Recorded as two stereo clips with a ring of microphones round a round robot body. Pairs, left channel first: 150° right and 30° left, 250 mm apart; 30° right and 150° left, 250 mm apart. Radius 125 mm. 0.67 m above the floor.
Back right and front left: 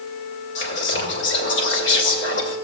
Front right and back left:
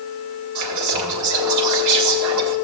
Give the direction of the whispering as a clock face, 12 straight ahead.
7 o'clock.